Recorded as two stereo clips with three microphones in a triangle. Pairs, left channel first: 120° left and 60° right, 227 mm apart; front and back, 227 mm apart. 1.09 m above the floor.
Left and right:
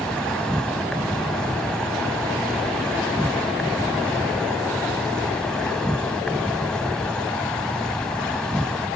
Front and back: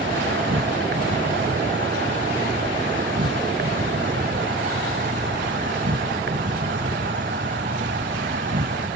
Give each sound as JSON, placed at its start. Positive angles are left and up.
{"t": 0.0, "sound": "an insect", "azimuth_deg": -155}